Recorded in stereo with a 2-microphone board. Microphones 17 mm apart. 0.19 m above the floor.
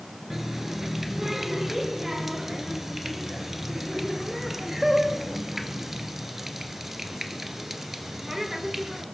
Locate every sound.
0.3 s a running tap: 10° right (ahead or behind), 2 m